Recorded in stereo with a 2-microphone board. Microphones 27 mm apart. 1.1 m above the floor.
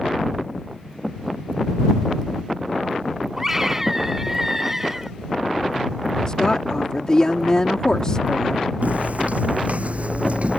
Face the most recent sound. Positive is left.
turn(degrees=-55)  # may be behind; listen again after turning